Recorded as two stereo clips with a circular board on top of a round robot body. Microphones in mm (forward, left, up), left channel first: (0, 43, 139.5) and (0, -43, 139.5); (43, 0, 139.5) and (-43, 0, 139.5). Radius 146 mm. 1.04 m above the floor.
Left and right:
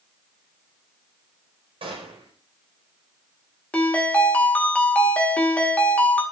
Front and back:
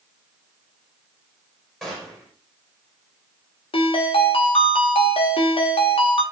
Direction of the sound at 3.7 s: 10° left.